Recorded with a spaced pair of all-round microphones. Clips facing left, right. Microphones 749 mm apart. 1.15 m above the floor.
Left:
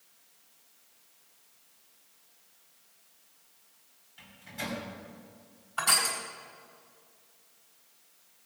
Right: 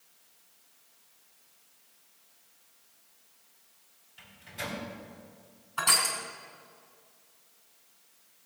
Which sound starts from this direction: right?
Crushing, at 5.8 s.